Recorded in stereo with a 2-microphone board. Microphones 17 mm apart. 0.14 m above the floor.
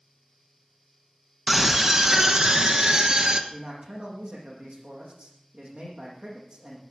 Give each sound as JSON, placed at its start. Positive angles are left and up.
{"t": 1.5, "sound": "a scream", "side_deg": -20, "distance_m": 1.0}
{"t": 3.5, "sound": "a man speaking", "side_deg": -70, "distance_m": 7.0}